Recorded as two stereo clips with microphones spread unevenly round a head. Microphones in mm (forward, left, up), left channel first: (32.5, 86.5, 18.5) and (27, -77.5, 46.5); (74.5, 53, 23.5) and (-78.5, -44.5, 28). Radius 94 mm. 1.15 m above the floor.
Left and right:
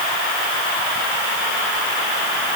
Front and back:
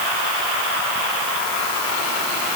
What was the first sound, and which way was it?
Only background noise.